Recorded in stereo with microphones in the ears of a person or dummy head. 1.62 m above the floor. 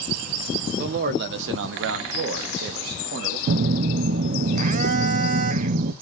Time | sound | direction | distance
0.8 | a man speaking | 50° right (ahead or behind) | 1.2 m
3.5 | a phone buzzing | 50° right (ahead or behind) | 0.7 m